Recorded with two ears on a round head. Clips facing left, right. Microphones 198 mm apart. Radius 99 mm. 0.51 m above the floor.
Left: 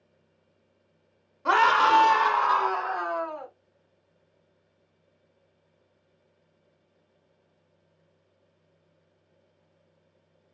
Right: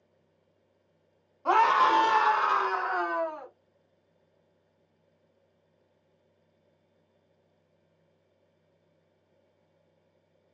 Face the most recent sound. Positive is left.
turn(degrees=-50)  # may be behind; listen again after turning